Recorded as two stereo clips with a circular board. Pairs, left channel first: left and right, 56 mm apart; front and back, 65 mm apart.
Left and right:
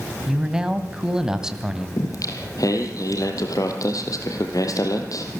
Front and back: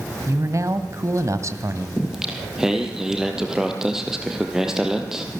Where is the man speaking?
165° right, 1.7 m.